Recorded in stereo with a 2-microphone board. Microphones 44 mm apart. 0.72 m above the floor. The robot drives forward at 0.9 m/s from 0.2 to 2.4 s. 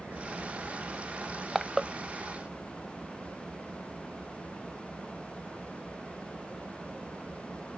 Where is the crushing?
5° right (ahead or behind); by 1.9 s 10° right (ahead or behind).